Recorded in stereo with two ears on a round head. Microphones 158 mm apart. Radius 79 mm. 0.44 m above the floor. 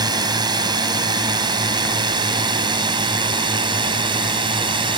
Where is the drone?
25° right (ahead or behind).